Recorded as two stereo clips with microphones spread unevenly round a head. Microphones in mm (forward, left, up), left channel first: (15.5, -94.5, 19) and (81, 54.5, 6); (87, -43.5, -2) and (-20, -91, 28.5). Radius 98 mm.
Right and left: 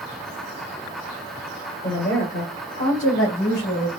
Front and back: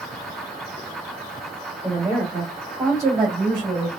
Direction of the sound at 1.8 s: 70° right.